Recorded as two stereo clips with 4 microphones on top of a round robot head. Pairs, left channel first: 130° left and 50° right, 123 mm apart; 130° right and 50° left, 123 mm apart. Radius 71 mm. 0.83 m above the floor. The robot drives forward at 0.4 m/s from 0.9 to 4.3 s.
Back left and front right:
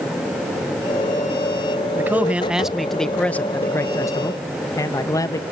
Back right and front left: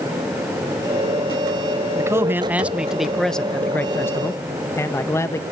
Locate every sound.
1.9 s a man speaking: 10° left, 0.9 m; by 5.4 s 175° left, 0.9 m